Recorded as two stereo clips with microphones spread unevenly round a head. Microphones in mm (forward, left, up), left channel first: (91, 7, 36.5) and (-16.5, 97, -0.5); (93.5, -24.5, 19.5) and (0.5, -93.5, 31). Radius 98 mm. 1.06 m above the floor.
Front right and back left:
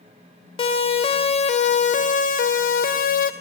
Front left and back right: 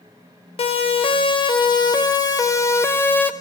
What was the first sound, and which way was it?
A siren, 10° left.